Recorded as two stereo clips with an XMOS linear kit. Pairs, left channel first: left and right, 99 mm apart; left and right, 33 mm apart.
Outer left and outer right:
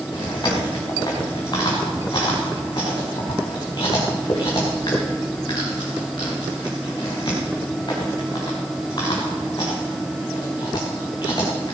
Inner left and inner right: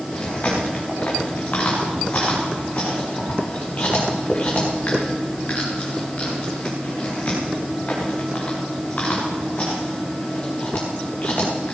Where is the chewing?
50° left (ahead or behind), 6.5 m.